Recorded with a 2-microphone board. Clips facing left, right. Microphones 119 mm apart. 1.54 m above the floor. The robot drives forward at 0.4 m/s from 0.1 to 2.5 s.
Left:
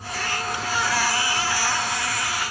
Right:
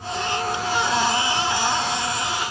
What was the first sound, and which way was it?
Only background noise.